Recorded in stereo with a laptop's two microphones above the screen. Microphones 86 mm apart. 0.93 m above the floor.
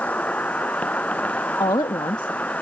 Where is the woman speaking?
60° left (ahead or behind).